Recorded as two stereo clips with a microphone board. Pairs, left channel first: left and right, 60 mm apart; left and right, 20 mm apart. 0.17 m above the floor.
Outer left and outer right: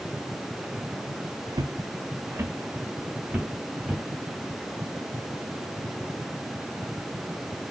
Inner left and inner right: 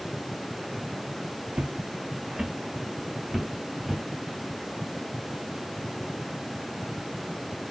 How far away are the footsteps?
About 0.5 m.